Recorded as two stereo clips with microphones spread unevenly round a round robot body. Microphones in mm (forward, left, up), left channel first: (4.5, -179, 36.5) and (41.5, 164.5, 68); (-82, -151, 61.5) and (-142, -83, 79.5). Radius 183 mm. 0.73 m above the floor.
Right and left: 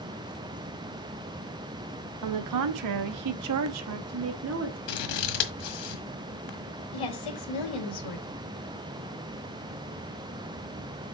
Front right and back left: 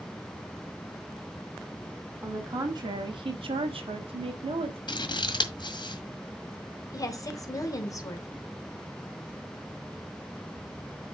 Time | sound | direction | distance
2.2 | a woman speaking | 65° left | 0.9 m
4.9 | scissors | 85° right | 1.6 m
6.9 | a woman speaking | 95° right | 2.5 m